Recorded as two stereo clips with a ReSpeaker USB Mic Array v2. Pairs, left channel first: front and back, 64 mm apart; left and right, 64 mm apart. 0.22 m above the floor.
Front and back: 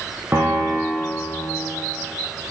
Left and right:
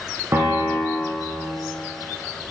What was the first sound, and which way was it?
A piano, 125° right.